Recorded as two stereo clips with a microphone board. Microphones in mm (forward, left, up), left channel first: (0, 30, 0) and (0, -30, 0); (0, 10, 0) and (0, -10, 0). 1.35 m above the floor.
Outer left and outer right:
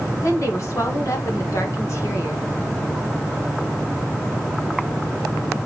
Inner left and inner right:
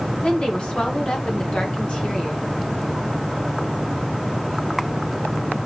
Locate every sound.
0.2 s a woman speaking: 55° left (ahead or behind), 1.8 m